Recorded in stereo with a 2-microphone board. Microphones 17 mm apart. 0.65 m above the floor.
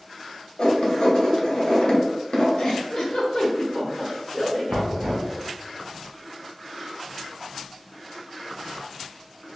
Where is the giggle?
60° left (ahead or behind), 1.1 m.